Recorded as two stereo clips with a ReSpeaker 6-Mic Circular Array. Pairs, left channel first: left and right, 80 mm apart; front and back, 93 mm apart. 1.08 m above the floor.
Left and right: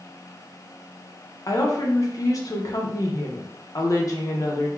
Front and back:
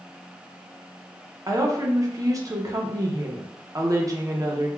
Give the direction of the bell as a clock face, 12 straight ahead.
No bell in this recording.